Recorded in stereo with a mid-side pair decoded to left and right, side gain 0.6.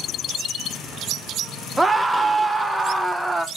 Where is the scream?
5° right, 0.6 m.